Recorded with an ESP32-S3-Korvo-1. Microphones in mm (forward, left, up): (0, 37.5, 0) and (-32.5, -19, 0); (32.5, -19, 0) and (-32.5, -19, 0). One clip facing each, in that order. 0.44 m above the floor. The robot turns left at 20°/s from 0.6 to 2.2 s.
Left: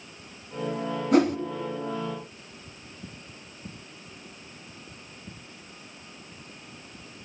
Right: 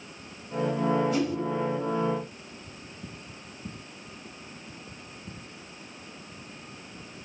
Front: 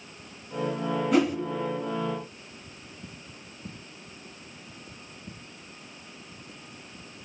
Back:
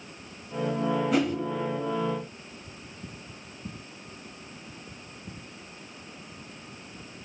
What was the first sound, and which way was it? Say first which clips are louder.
A whoosh: left 7 dB, front 5 dB; 90° left.